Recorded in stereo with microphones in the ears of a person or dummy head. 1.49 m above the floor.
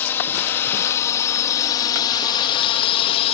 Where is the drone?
10° left (ahead or behind); by 3.4 s 35° left (ahead or behind).